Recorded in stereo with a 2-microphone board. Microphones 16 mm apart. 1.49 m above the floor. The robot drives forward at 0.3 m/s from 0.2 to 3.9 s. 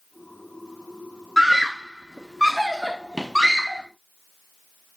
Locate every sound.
1.4 s a scream: 30° right (ahead or behind), 0.7 m; by 3.8 s 15° right (ahead or behind), 1.4 m